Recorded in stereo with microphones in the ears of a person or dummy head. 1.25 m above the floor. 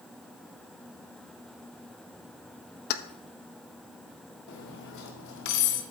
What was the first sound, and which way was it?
Keys jangling, 60° left (ahead or behind).